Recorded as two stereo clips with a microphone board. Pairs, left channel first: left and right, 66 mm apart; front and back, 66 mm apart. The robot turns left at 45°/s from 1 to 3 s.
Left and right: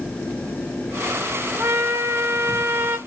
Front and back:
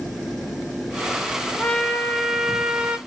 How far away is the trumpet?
About 0.6 m.